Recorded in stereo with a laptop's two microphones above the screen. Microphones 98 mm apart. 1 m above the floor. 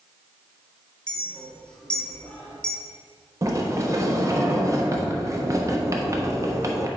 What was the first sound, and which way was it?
A clink, 10° left (ahead or behind).